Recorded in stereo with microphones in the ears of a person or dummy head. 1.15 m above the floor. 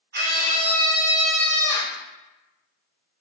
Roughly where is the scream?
Right.